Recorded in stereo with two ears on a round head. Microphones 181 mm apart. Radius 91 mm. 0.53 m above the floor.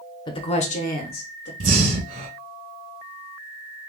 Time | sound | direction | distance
0.3 | a woman speaking | 25° left (ahead or behind) | 0.8 m
1.6 | breathing | 45° right (ahead or behind) | 2 m